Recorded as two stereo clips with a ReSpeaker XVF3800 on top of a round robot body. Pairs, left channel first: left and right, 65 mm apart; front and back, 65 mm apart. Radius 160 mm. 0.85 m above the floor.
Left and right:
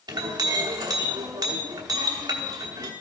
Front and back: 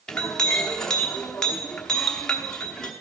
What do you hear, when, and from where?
0.1 s a clink: 80° right, 1.0 m